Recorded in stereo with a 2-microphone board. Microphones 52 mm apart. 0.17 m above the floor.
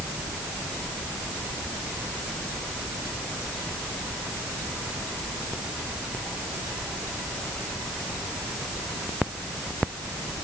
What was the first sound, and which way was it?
Only background noise.